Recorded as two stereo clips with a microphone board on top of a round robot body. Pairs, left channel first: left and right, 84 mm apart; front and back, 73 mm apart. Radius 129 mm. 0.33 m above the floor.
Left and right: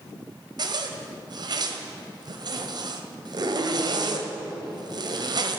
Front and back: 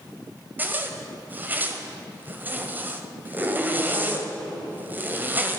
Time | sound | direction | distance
0.6 | a zipper | 115° right | 1.7 m